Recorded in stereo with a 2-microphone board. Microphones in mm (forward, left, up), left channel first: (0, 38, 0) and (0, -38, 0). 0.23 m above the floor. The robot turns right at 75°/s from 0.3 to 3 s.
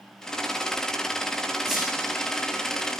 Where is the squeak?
10° right (ahead or behind), 4.5 m; by 1.9 s 5° left (ahead or behind), 4.5 m.